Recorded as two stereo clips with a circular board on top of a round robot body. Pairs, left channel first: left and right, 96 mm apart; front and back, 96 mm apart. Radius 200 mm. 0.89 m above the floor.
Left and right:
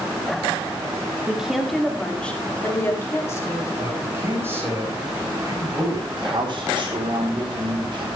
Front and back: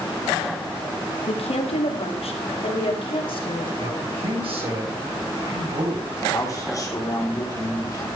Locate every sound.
1.3 s a woman speaking: 10° right, 2.5 m; by 3.7 s 30° left, 3.5 m
3.8 s a man speaking: 160° right, 9.5 m
6.2 s a man speaking: 55° right, 3.5 m